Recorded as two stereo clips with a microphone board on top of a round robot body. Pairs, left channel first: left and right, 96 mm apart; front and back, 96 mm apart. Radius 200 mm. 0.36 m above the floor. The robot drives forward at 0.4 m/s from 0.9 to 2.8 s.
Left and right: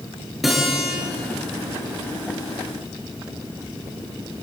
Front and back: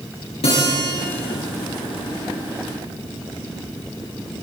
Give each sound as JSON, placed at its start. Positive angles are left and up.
{"t": 0.4, "sound": "a guitar", "azimuth_deg": 0, "distance_m": 9.5}